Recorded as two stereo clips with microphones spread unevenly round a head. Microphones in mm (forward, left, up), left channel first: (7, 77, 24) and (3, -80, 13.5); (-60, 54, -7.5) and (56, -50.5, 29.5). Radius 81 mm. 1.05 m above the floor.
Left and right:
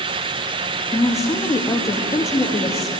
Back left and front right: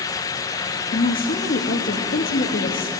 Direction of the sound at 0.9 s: 160° left.